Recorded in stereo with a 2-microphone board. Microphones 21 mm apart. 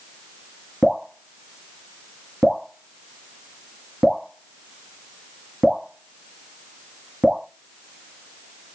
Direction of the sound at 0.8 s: 30° right (ahead or behind).